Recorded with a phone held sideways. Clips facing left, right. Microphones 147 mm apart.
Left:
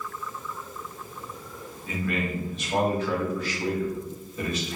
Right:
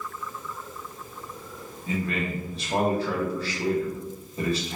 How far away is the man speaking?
About 1.0 m.